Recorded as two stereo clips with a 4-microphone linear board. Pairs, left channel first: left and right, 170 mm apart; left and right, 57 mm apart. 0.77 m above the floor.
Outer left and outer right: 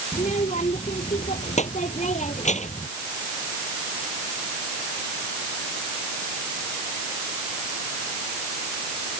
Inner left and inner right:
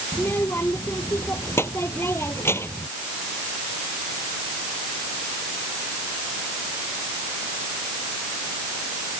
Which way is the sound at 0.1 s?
45° left (ahead or behind).